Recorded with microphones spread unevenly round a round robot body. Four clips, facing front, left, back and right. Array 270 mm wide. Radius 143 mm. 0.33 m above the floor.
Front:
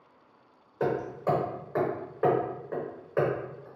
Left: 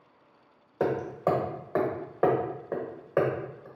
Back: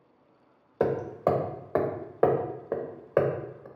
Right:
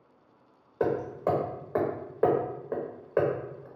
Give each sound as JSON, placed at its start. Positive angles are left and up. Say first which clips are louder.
{"t": 0.8, "sound": "hammering", "louder": "even, back 3 dB", "azimuth_deg": 165, "distance_m": 0.7}